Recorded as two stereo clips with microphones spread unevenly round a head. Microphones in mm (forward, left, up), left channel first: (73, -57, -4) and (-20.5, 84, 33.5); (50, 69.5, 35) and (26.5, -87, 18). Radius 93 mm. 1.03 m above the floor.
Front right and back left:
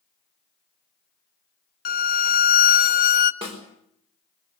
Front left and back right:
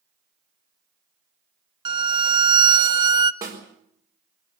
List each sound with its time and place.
1.9 s a violin: 45° right, 0.9 m
3.4 s a snare drum: 170° right, 4.5 m